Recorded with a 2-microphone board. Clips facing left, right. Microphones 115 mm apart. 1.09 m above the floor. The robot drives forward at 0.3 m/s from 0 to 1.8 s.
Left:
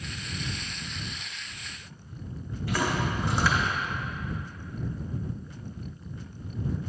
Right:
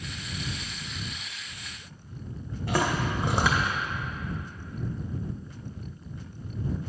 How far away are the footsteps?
About 2.5 m.